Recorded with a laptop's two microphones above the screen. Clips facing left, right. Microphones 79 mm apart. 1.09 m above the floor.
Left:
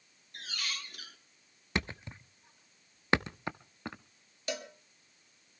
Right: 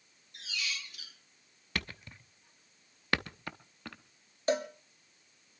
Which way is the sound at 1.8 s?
25° left (ahead or behind).